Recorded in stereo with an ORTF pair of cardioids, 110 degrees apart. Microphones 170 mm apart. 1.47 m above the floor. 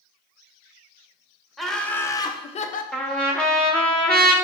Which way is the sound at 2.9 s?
5° left.